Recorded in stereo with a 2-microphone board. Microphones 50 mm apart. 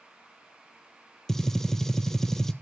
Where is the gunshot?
10° left (ahead or behind), 0.6 m.